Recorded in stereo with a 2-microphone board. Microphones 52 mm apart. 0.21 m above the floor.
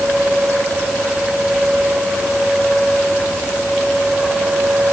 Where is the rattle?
No rattle in this recording.